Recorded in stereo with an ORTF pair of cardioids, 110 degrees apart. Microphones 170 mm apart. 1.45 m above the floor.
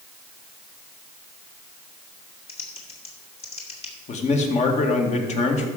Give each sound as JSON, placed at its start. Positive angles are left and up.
{"t": 2.5, "sound": "typing on a keyboard", "azimuth_deg": 40, "distance_m": 2.5}
{"t": 4.1, "sound": "a man speaking", "azimuth_deg": 45, "distance_m": 2.0}